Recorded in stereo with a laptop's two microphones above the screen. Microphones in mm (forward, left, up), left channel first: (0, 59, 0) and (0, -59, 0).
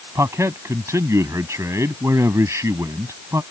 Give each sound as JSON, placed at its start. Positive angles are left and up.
{"t": 0.1, "sound": "a man speaking", "side_deg": -25}